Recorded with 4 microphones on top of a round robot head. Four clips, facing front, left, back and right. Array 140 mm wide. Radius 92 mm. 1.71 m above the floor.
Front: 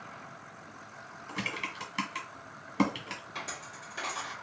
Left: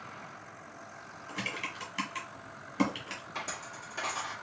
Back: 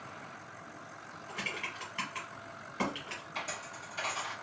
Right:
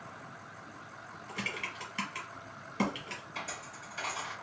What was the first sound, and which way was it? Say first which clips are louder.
Typing on a keyboard: left 1 dB, front 3 dB; 10° left.